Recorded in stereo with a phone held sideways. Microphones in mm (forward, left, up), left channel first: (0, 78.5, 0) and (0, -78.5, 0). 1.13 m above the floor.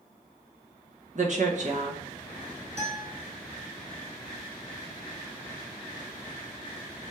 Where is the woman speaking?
55° right (ahead or behind), 1.0 m.